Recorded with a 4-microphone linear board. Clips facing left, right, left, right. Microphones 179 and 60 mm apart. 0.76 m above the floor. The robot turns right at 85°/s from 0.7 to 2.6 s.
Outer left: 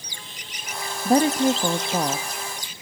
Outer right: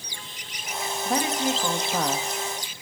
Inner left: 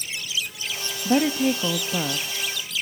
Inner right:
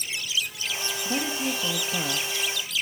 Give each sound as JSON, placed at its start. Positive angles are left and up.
{"t": 1.1, "sound": "a woman speaking", "azimuth_deg": 75, "distance_m": 0.8}